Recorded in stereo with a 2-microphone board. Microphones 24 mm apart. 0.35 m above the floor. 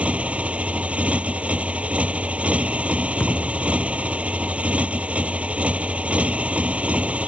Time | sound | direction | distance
0.0 | a motorcycle | 60° right (ahead or behind) | ?
3.2 | a thud | 50° left (ahead or behind) | ?